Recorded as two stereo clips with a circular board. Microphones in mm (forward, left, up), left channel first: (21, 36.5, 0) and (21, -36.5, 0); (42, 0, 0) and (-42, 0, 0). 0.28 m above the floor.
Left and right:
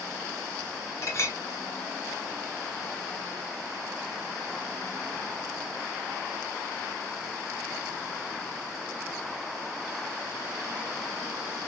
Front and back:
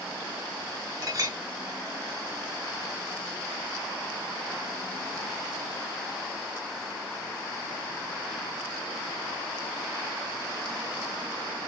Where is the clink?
140° left, 3 m.